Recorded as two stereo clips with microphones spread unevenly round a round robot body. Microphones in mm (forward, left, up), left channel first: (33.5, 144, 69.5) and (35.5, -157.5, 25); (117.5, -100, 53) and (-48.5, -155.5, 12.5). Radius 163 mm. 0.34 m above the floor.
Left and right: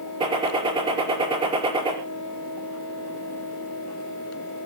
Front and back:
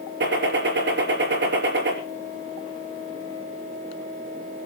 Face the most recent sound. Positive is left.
turn(degrees=-165)